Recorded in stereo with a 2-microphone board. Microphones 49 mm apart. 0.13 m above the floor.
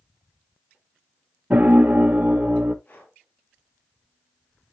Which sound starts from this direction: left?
Breathing, at 2.9 s.